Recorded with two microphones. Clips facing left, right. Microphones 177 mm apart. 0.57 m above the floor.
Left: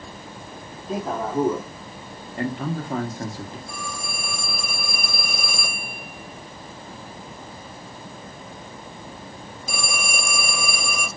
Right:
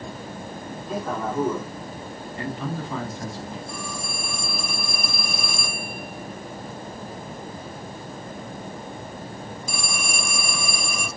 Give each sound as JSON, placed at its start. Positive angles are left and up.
{"t": 0.9, "sound": "a man speaking", "side_deg": 25, "distance_m": 1.2}
{"t": 2.4, "sound": "a man speaking", "side_deg": 45, "distance_m": 0.9}
{"t": 3.7, "sound": "a phone ringing", "side_deg": 55, "distance_m": 1.3}